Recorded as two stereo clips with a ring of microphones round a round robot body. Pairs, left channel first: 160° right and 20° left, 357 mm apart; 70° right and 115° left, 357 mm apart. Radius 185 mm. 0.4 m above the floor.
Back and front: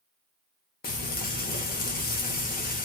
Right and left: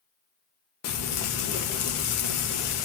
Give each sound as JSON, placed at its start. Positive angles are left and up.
{"t": 0.8, "sound": "frying", "azimuth_deg": -100, "distance_m": 0.8}